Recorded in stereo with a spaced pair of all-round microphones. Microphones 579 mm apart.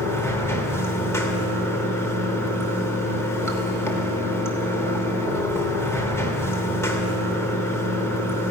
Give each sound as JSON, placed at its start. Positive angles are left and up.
{"t": 0.0, "sound": "running water", "side_deg": 5, "distance_m": 3.0}